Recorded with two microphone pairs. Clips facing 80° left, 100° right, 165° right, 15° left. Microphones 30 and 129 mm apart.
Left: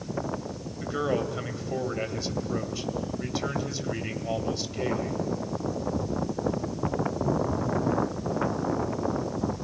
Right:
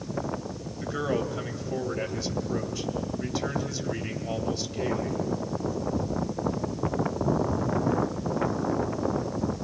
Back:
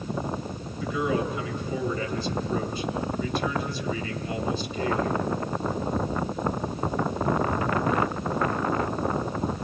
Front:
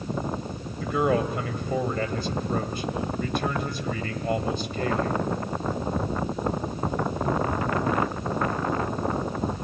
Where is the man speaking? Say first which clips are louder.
Left 1 dB, front 3 dB; straight ahead, 2.5 m.